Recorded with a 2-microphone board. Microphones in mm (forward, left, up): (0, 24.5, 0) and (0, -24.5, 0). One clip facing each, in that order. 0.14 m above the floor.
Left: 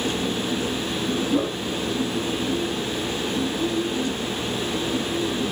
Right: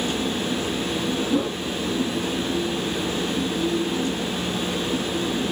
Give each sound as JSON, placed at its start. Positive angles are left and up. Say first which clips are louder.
{"t": 1.3, "sound": "a whoosh", "louder": "even", "side_deg": 10, "distance_m": 0.7}